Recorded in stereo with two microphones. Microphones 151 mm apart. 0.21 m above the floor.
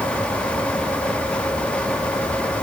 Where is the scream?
I don't hear a scream.